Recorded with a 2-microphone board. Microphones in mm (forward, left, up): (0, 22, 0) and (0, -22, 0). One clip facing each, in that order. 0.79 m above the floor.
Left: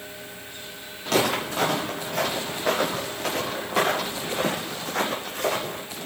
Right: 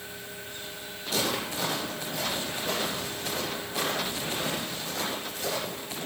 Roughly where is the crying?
I don't hear crying.